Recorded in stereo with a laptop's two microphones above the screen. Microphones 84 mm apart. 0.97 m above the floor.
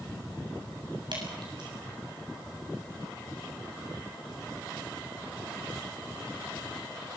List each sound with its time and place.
1.1 s dripping: 60° right (ahead or behind), 7.5 m